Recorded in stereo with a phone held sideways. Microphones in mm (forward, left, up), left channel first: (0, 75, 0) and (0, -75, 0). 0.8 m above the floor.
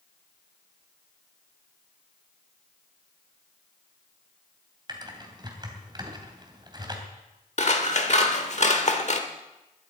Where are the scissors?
50° left (ahead or behind), 1.4 m.